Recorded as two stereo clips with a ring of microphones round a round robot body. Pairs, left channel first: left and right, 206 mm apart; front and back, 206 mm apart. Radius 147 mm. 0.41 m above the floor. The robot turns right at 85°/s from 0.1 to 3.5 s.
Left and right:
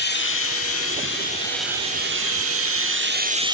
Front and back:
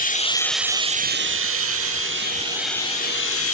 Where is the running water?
50° left, 0.8 m; by 3.5 s 20° right, 0.8 m.